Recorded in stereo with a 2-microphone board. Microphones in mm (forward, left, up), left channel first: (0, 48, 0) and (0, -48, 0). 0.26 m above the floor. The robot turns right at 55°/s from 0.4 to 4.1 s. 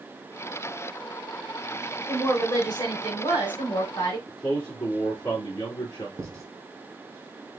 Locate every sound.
2.1 s a woman speaking: 15° left, 2.5 m; by 4.2 s 130° left, 2.5 m
4.3 s a man speaking: 40° left (ahead or behind), 2.5 m
6.2 s writing: 30° right (ahead or behind), 1.8 m